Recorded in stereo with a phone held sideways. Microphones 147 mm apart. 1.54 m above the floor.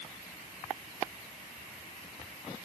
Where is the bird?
I don't hear a bird.